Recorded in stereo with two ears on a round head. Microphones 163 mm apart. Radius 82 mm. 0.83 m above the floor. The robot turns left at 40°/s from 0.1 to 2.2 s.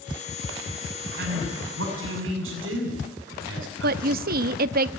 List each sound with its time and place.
1.2 s a man speaking: 60° right (ahead or behind), 8 m; by 4.5 s 80° right, 8 m
3.8 s a woman speaking: 55° right (ahead or behind), 0.7 m